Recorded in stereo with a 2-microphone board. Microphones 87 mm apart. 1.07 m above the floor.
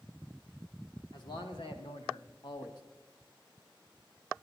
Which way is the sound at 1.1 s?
65° left (ahead or behind).